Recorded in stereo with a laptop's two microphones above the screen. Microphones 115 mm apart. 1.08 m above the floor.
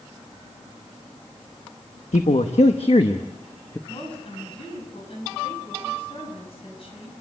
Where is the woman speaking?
55° left (ahead or behind), 7.5 m.